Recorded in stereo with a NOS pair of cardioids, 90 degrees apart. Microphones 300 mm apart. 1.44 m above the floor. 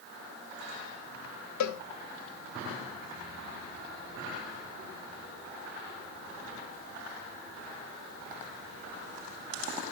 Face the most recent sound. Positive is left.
turn(degrees=70)